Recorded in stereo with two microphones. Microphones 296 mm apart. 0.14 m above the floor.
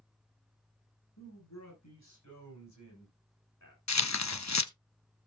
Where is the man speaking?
65° left (ahead or behind), 8 m; by 3.8 s 75° left (ahead or behind), 8 m.